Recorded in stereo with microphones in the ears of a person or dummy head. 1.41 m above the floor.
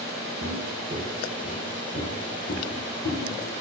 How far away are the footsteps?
About 1.9 m.